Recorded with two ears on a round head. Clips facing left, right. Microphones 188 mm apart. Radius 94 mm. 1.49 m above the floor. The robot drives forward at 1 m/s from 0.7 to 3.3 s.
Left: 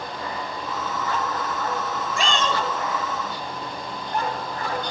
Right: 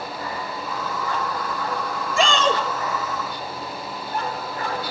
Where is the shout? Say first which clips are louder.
Right 5 dB; 65° right (ahead or behind), 2 m; by 2.6 s 55° right (ahead or behind), 2.5 m.